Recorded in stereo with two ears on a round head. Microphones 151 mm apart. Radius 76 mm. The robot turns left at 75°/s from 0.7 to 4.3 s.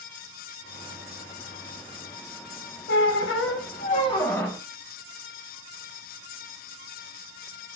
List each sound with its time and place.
2.9 s a squeak: 115° left, 0.6 m; by 4.6 s 10° left, 0.6 m